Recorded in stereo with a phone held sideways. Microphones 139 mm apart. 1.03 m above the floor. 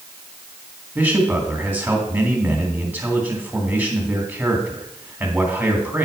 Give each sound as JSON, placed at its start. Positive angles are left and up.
{"t": 0.9, "sound": "a man speaking", "side_deg": -10, "distance_m": 2.0}